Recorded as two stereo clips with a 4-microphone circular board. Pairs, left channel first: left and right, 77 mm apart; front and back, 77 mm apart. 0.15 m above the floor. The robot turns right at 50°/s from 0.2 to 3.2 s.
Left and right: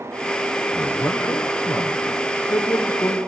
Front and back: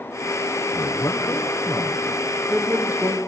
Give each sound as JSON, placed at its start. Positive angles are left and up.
{"t": 0.7, "sound": "a man speaking", "azimuth_deg": 20, "distance_m": 2.5}